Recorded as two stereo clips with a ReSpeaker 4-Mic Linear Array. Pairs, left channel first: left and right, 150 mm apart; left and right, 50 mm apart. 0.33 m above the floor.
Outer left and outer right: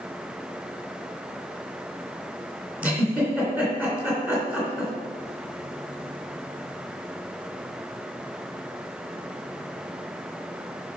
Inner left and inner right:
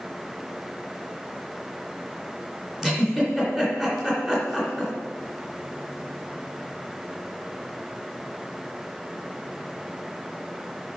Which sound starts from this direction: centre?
A giggle, at 2.8 s.